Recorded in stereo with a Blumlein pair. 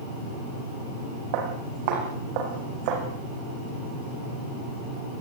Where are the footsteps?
45° right, 7 m.